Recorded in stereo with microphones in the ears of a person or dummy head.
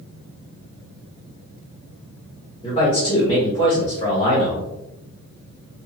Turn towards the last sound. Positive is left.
turn(degrees=15)  # may be behind; listen again after turning